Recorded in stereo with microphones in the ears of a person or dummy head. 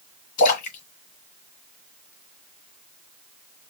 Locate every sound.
0.4 s a splash: 60° left (ahead or behind), 1.9 m